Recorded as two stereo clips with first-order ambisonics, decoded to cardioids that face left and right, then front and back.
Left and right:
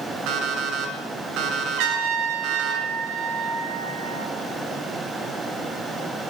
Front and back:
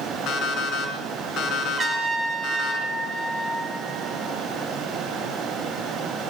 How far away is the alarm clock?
About 5 m.